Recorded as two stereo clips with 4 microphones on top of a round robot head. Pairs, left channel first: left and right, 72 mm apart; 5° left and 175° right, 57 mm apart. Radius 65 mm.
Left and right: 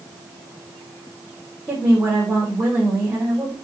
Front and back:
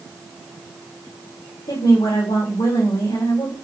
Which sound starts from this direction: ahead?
A woman speaking, at 1.7 s.